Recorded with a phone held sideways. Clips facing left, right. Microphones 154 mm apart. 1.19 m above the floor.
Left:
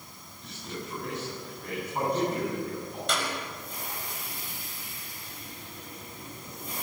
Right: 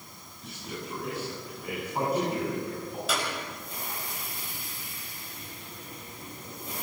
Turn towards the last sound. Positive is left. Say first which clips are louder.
# even
turn(degrees=-5)  # may be behind; listen again after turning